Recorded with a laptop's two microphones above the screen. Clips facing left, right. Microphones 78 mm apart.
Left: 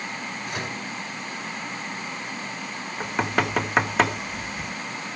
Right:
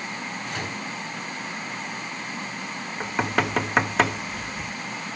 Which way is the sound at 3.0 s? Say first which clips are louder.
Even; centre (ahead or behind).